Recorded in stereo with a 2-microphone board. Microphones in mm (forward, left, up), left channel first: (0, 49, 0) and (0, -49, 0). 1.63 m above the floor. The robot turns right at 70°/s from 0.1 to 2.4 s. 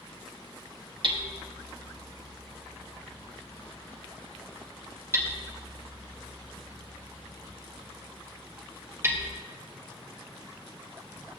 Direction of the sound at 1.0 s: 50° right (ahead or behind).